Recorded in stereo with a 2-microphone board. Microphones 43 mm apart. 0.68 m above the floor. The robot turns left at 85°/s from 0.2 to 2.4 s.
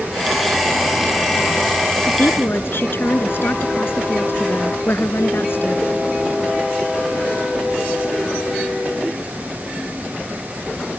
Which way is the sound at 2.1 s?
85° left.